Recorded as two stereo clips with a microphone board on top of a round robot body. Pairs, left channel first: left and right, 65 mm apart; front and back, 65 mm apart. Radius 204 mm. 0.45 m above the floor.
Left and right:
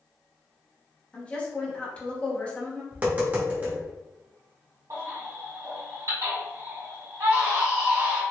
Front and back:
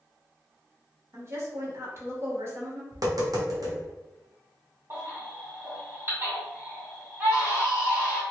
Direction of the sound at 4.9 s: 125° right.